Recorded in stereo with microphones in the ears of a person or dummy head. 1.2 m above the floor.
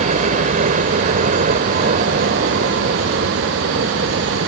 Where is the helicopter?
40° right (ahead or behind); by 4.5 s 50° right (ahead or behind).